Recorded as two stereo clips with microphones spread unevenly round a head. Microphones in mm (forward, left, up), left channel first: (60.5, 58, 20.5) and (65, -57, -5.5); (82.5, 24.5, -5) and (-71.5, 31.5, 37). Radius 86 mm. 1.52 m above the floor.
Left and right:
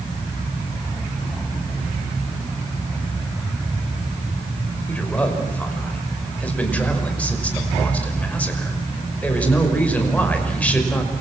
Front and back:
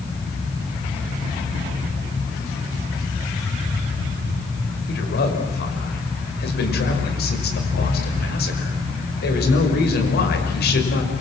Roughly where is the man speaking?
Ahead.